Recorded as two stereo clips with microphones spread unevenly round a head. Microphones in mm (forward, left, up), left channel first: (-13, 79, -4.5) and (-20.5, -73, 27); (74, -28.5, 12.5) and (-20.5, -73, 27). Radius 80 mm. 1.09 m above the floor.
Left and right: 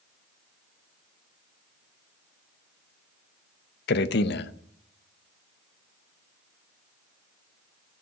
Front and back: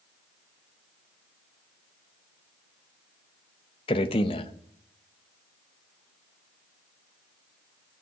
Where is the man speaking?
75° left, 0.8 m.